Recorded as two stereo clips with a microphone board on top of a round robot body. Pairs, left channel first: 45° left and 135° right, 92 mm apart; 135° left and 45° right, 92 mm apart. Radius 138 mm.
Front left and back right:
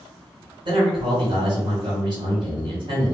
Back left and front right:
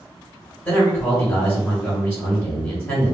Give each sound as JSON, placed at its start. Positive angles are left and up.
{"t": 0.7, "sound": "a man speaking", "azimuth_deg": -150, "distance_m": 2.0}